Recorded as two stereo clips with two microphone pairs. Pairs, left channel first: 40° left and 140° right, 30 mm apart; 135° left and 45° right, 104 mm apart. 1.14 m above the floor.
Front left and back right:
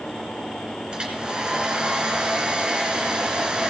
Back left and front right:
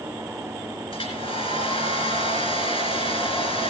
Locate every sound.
0.9 s a hair dryer: 155° left, 3 m